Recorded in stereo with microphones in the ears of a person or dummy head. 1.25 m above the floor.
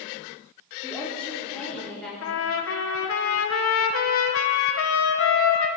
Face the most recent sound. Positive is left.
turn(degrees=65)  # may be behind; listen again after turning